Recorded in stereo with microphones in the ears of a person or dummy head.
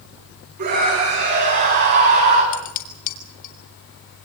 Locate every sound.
0.6 s a scream: 55° right (ahead or behind), 10 m; by 2.4 s 60° right (ahead or behind), 9.5 m
2.5 s dishes clattering: 45° left (ahead or behind), 2.5 m